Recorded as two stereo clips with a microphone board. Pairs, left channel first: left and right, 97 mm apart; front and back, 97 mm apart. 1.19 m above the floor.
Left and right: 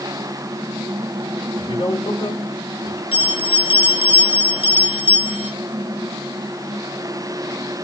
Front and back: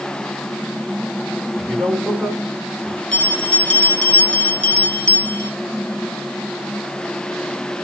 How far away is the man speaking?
About 4 m.